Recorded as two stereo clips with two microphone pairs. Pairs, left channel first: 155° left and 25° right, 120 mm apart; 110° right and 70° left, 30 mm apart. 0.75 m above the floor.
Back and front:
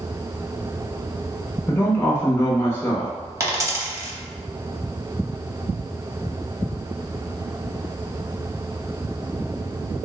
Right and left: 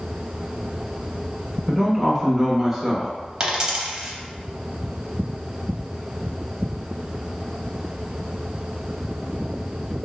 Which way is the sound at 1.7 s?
135° left.